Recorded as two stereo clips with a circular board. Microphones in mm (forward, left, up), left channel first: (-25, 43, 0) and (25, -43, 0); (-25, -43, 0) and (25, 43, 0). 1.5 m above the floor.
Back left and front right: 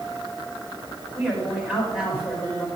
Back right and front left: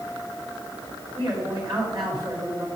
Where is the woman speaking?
15° left, 5 m.